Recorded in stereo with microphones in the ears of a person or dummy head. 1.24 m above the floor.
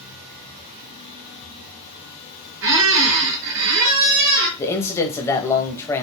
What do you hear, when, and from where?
2.6 s a squeak: 70° right (ahead or behind), 2 m
4.6 s a man speaking: 10° left (ahead or behind), 0.9 m